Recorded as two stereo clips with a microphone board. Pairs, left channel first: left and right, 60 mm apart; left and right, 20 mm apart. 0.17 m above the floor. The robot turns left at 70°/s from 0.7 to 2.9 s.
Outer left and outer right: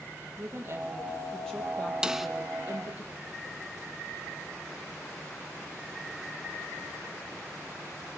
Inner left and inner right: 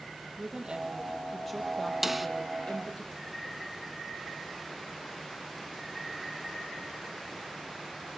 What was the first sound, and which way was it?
A woman speaking, 135° right.